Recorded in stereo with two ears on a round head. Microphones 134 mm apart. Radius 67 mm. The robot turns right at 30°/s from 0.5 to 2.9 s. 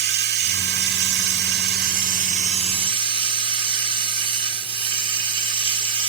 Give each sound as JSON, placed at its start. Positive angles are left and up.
{"t": 0.0, "sound": "running water", "azimuth_deg": -105, "distance_m": 1.2}